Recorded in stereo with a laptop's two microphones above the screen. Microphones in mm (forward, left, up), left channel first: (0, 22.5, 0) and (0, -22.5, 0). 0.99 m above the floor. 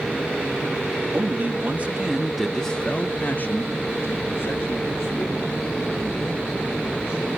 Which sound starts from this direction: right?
A man speaking, at 1.1 s.